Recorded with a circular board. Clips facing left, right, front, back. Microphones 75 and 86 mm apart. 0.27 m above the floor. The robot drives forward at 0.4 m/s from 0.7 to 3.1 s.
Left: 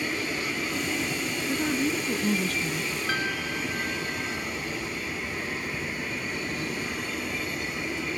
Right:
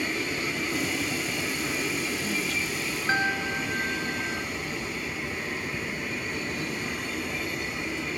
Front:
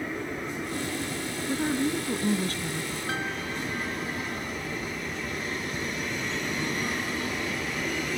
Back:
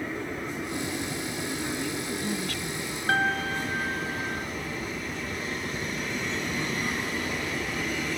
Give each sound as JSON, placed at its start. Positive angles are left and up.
{"t": 1.5, "sound": "a woman speaking", "azimuth_deg": 45}
{"t": 3.1, "sound": "a piano", "azimuth_deg": -150}